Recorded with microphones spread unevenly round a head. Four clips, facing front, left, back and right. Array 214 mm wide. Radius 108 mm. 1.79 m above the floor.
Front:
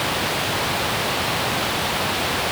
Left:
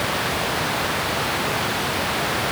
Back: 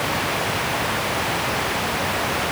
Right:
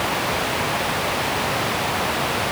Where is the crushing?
I don't hear crushing.